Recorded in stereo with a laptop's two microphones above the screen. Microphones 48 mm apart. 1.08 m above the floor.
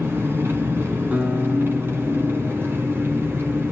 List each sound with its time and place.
0.0 s an engine running: 50° right (ahead or behind), 3.5 m
1.1 s a guitar: 35° right (ahead or behind), 4 m